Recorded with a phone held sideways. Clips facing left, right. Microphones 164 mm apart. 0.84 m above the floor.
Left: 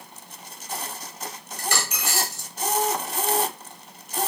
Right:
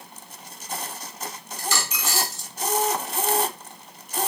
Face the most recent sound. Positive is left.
turn(degrees=65)  # may be behind; listen again after turning